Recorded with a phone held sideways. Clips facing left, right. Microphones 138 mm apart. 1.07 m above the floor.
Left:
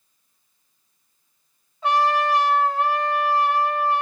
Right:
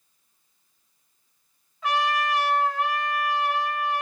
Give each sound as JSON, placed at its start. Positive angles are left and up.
{"t": 1.8, "sound": "a trumpet", "side_deg": 35, "distance_m": 3.0}